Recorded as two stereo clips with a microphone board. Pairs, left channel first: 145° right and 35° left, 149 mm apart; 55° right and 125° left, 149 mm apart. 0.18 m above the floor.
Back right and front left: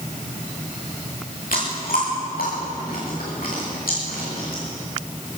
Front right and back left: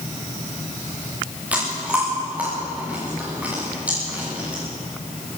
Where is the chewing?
155° right, 9 m.